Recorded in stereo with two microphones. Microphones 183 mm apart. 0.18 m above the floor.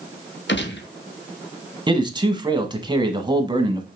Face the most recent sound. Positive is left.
turn(degrees=-25)  # may be behind; listen again after turning